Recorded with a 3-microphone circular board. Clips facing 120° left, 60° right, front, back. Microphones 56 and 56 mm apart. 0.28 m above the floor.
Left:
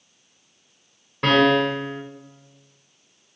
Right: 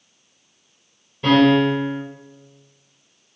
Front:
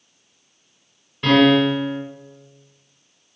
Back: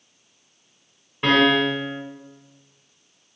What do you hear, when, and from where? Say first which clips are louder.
1.2 s a piano: right 3 dB, front 3 dB; 115° left, 1.3 m